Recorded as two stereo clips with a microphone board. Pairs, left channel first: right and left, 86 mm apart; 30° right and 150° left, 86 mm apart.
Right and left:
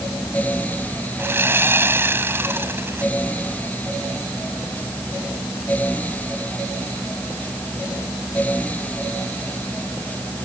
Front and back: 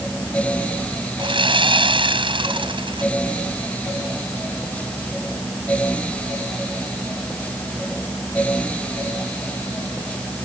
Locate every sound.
1.2 s sawing: 150° left